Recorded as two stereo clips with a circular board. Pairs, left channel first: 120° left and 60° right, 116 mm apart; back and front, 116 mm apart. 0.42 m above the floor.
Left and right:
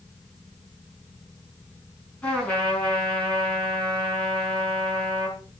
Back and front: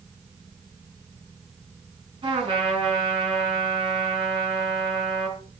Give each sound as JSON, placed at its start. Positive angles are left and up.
{"t": 2.2, "sound": "a trumpet", "azimuth_deg": 40, "distance_m": 4.5}